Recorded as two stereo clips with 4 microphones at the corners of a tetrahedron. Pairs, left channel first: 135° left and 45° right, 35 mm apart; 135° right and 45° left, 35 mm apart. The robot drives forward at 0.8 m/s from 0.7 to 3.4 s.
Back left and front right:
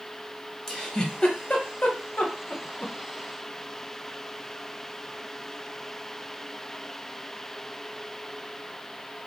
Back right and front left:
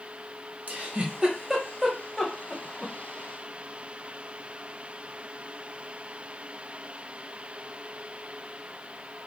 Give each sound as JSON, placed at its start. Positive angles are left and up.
{"t": 0.7, "sound": "a giggle", "azimuth_deg": 60, "distance_m": 1.0}